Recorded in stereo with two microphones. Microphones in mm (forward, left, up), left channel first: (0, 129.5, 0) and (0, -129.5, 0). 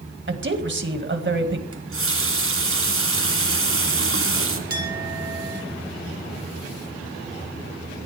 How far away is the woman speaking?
About 2 m.